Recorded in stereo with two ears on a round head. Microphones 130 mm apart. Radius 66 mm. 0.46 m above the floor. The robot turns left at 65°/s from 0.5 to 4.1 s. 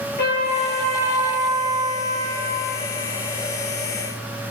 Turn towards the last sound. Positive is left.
turn(degrees=-160)